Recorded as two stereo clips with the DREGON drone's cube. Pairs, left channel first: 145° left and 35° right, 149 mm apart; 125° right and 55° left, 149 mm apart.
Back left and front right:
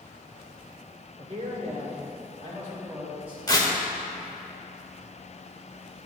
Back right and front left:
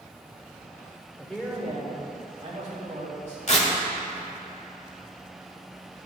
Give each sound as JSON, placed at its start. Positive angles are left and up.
{"t": 1.2, "sound": "a man speaking", "azimuth_deg": -45, "distance_m": 1.7}
{"t": 3.5, "sound": "tearing paper", "azimuth_deg": -155, "distance_m": 1.3}